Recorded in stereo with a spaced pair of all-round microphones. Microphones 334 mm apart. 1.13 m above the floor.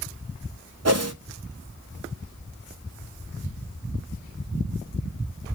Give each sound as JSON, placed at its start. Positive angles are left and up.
{"t": 0.8, "sound": "a whoosh", "side_deg": -50, "distance_m": 0.6}